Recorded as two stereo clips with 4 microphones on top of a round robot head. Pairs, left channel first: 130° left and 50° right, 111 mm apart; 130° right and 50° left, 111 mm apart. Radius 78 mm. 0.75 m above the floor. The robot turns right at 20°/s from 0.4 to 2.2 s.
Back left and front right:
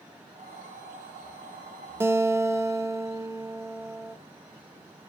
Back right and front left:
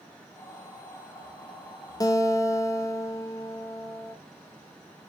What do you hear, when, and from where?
2.0 s a guitar: 100° right, 0.8 m; by 4.2 s 95° right, 0.8 m